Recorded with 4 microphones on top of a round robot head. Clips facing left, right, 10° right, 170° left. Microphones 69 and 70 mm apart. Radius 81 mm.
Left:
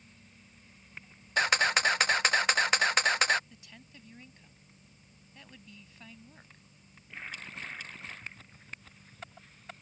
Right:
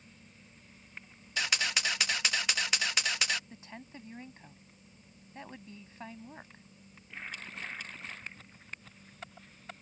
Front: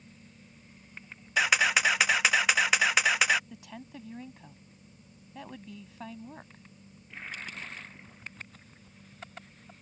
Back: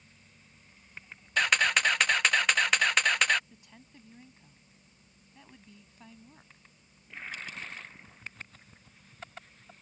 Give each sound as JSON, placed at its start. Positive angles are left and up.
{"t": 1.4, "sound": "a camera shutter", "azimuth_deg": 75}
{"t": 3.5, "sound": "a woman speaking", "azimuth_deg": -25}